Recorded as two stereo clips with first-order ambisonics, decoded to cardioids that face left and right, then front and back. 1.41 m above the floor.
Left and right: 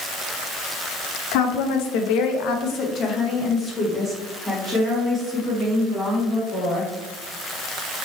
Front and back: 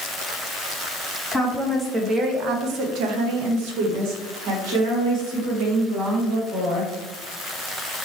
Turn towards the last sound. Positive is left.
turn(degrees=-155)